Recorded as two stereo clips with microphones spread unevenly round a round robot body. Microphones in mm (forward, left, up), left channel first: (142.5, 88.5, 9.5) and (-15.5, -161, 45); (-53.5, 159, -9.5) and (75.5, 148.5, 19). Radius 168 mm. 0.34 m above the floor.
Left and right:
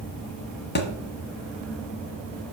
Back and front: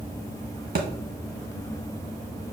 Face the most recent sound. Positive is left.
turn(degrees=0)